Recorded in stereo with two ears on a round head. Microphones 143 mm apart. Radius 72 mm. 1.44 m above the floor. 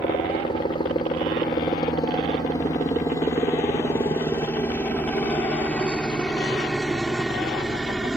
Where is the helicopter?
30° left (ahead or behind); by 8.2 s 5° right (ahead or behind).